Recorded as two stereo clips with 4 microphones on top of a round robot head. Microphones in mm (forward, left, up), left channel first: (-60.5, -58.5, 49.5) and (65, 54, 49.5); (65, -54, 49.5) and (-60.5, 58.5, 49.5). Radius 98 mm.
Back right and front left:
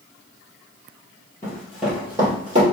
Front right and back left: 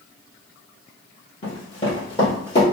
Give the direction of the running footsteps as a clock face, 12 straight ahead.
2 o'clock.